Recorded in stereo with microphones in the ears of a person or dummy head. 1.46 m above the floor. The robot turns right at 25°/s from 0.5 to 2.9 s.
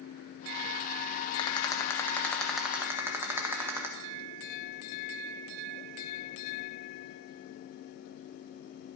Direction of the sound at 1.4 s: 155° left.